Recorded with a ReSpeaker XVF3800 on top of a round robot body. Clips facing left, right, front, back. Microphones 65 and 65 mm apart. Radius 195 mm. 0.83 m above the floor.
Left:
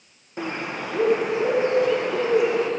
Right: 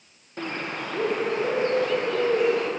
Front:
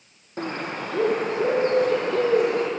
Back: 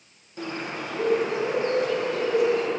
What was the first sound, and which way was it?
A bird, 15° left.